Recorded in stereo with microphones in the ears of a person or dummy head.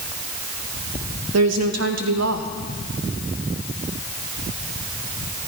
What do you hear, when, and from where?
1.3 s a woman speaking: 75° right (ahead or behind), 2 m